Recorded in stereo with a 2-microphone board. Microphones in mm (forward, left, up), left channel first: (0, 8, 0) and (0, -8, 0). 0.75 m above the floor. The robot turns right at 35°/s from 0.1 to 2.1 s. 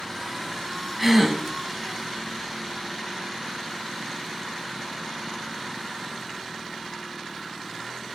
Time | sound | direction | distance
1.0 | a gasp | centre (ahead or behind) | 1.0 m